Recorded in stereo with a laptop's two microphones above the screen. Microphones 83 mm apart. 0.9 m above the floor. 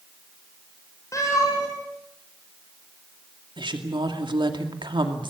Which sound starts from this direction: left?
A cat meowing, at 1.1 s.